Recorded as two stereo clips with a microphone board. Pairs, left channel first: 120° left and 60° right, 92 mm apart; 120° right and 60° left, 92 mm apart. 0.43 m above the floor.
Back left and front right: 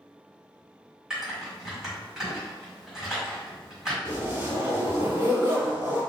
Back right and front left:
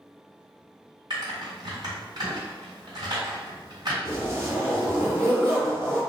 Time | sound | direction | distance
1.1 | typing on a keyboard | 20° left | 1.4 m
4.0 | a zipper | 5° right | 1.3 m